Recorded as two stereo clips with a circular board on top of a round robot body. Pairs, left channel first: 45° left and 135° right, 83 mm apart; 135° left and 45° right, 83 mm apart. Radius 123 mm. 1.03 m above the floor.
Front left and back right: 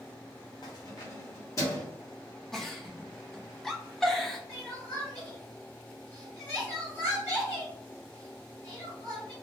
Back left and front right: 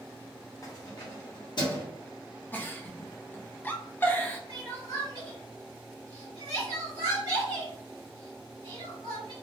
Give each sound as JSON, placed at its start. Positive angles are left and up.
{"t": 0.6, "sound": "keys jangling", "azimuth_deg": 80, "distance_m": 0.6}
{"t": 2.5, "sound": "a giggle", "azimuth_deg": 120, "distance_m": 0.7}
{"t": 4.5, "sound": "crying", "azimuth_deg": 105, "distance_m": 1.4}